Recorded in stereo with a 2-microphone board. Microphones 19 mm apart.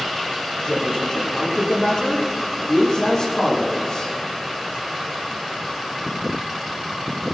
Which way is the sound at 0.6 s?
40° left (ahead or behind).